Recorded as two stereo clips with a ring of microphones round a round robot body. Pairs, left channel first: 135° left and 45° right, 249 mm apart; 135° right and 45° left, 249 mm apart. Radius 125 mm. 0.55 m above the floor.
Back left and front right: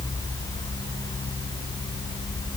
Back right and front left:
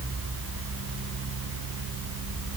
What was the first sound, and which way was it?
Only background noise.